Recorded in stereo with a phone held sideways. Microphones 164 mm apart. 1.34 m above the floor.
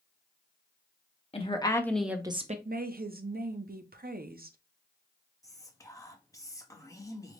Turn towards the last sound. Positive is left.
turn(degrees=20)  # may be behind; listen again after turning